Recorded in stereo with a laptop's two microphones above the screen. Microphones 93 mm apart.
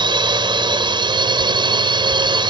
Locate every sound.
0.0 s a drone: 55° right (ahead or behind)